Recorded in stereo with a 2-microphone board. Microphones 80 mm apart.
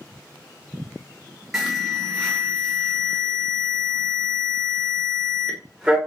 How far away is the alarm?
About 0.8 m.